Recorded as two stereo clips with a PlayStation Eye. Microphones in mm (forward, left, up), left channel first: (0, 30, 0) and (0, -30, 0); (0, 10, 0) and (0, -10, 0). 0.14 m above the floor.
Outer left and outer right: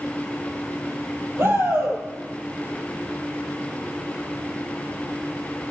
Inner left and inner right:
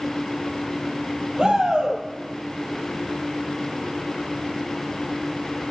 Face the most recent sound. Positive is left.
turn(degrees=-45)  # may be behind; listen again after turning